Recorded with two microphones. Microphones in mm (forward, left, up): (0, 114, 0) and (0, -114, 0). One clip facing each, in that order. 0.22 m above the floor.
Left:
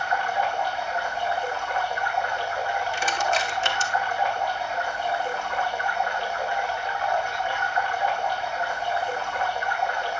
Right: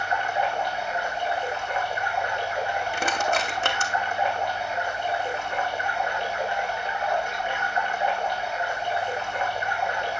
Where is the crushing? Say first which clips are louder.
Right 2 dB; 60° right (ahead or behind), 2 m.